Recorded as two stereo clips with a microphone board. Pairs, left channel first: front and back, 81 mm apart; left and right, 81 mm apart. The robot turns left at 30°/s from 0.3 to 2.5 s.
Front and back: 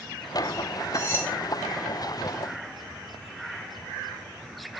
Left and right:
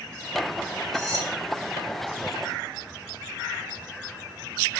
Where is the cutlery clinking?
50° right, 1.5 m; by 1.3 s 60° right, 1.5 m.